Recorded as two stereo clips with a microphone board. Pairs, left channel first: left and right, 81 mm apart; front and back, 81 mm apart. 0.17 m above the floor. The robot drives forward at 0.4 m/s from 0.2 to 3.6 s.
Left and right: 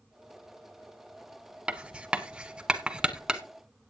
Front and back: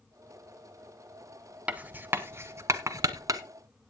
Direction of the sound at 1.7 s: 145° right.